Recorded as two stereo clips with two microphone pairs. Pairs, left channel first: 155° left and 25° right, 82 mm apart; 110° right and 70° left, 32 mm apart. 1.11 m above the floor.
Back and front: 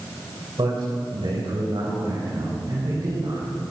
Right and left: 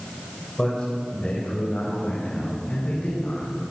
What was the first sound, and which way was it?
A man speaking, 40° right.